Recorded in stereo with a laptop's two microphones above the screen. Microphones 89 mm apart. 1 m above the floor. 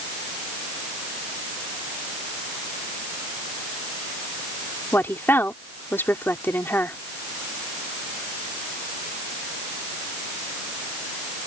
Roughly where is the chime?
No chime in this recording.